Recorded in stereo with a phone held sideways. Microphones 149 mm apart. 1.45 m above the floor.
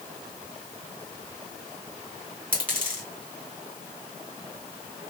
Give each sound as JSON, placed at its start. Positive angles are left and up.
{"t": 2.5, "sound": "a dropped coin", "side_deg": -10, "distance_m": 2.5}